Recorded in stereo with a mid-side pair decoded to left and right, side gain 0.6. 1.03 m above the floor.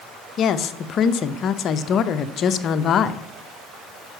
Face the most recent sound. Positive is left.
turn(degrees=50)